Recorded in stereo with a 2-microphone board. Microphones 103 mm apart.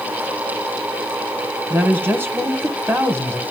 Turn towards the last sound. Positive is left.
turn(degrees=-20)  # may be behind; listen again after turning